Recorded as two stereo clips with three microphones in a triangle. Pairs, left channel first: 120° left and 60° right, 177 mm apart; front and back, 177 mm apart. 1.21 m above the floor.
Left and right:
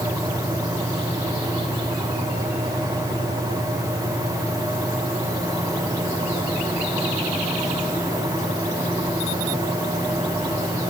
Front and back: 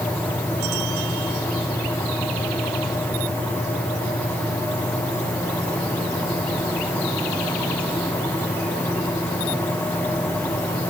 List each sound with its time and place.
Only background noise.